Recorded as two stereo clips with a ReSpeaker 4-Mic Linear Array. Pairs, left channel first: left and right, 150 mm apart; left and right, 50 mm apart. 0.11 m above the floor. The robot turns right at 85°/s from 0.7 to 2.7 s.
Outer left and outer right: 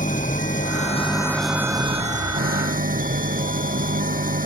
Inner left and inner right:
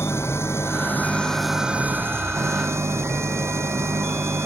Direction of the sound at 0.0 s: 115° left.